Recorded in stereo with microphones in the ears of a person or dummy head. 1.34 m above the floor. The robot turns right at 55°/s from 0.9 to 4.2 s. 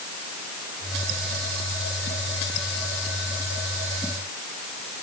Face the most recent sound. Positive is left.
No sound to turn to.